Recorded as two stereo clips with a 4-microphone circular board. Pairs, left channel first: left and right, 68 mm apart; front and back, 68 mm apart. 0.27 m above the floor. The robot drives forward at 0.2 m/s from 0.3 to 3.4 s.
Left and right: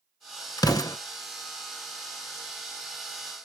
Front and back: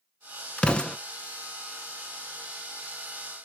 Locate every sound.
0.6 s an explosion: 70° left, 0.6 m; by 1.0 s 80° left, 0.6 m